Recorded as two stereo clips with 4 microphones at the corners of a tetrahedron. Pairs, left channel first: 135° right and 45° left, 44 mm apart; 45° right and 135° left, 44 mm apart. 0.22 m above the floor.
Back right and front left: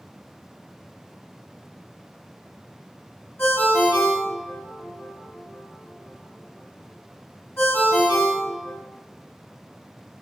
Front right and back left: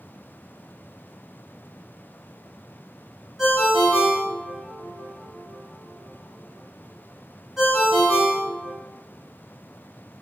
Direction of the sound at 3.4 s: 145° right.